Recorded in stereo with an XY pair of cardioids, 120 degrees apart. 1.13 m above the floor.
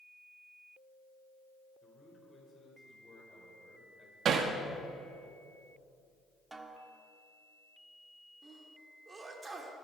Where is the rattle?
I don't hear a rattle.